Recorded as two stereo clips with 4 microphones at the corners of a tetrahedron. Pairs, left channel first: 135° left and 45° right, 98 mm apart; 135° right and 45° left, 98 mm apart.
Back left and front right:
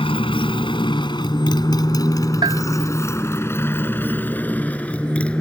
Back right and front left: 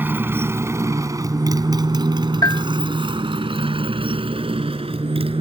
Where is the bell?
85° right.